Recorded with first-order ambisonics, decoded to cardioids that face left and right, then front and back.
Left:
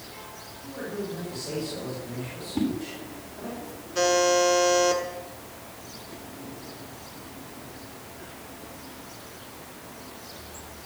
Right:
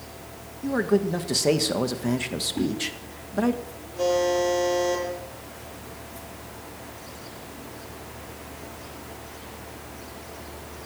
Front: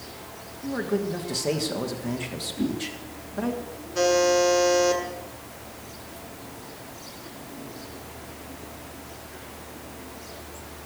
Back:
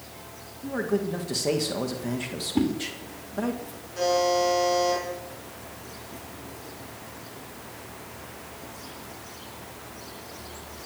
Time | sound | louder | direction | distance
0.6 | a man speaking | right 11 dB, even | 95° right | 1.6 m
2.5 | a whoosh | left 2 dB, back 5 dB | 170° left | 3 m
4.0 | a buzzer | left 1 dB, front 3 dB | 60° left | 7 m